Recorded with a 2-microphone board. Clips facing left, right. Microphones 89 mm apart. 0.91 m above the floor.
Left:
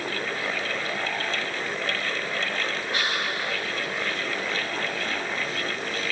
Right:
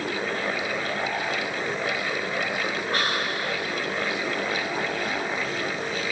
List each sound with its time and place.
2.9 s whispering: 45° right (ahead or behind), 1.9 m